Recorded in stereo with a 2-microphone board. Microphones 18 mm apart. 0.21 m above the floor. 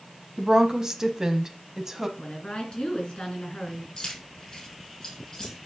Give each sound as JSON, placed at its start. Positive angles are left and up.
{"t": 0.4, "sound": "a woman speaking", "side_deg": -35, "distance_m": 1.2}
{"t": 2.2, "sound": "a woman speaking", "side_deg": 60, "distance_m": 3.0}
{"t": 4.0, "sound": "keys jangling", "side_deg": 30, "distance_m": 4.5}